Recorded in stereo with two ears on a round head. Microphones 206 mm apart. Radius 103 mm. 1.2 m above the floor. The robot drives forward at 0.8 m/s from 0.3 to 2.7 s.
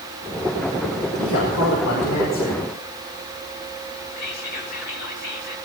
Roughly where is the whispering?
Left.